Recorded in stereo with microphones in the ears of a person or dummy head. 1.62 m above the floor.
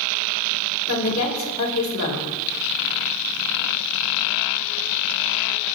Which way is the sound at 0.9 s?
90° left.